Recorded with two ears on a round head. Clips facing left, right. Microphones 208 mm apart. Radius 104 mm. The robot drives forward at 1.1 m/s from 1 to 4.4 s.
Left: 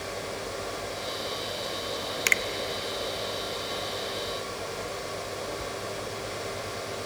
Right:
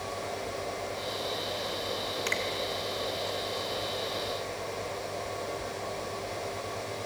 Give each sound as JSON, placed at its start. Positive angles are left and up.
{"t": 2.3, "sound": "a finger snap", "side_deg": 35, "distance_m": 0.7}